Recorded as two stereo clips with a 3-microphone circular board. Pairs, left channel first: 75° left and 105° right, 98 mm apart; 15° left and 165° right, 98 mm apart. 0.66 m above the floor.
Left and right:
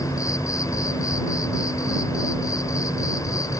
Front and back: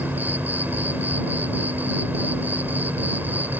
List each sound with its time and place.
0.0 s an insect: 125° left